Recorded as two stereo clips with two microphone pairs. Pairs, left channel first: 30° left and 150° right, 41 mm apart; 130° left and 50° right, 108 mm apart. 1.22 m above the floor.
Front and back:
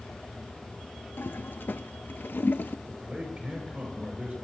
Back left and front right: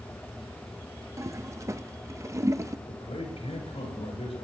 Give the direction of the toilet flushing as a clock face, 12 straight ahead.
12 o'clock.